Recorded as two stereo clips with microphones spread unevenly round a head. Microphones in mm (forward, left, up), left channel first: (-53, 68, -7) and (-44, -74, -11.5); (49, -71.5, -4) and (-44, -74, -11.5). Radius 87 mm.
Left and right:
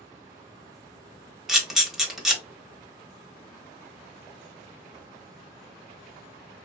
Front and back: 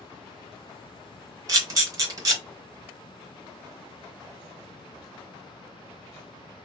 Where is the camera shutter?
175° right, 0.9 m.